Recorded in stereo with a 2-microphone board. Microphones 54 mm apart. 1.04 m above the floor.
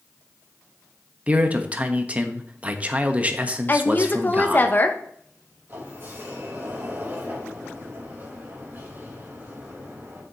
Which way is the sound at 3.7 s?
35° left (ahead or behind).